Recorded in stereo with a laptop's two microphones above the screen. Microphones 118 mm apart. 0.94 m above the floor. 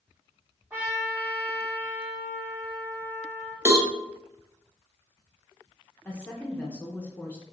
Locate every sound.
0.7 s a trumpet: 15° right (ahead or behind), 1.5 m
3.6 s a cowbell: 20° right (ahead or behind), 1.0 m
6.0 s a woman speaking: 15° left (ahead or behind), 0.7 m